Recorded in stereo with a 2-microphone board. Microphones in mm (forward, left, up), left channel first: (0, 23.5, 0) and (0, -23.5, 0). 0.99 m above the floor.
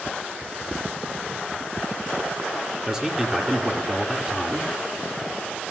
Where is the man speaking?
15° right (ahead or behind), 1.5 m.